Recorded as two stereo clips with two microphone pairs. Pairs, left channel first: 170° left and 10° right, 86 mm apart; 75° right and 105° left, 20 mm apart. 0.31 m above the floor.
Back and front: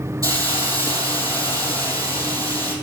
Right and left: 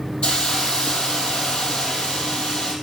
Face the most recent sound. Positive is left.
turn(degrees=-60)